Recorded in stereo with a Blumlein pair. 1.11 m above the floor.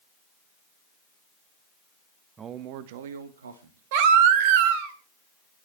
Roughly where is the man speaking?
Ahead.